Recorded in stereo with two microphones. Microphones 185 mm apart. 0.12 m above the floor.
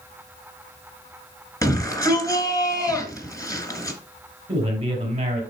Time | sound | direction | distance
1.6 | a shout | 20° left (ahead or behind) | 2 m
4.5 | a man speaking | 30° right (ahead or behind) | 3.5 m